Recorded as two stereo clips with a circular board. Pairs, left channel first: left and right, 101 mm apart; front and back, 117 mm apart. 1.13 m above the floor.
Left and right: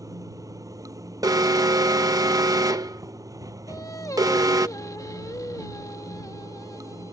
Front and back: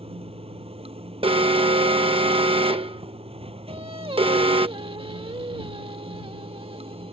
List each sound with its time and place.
0.0 s running water: 145° right
1.2 s an alarm: 140° right
3.7 s singing: 145° left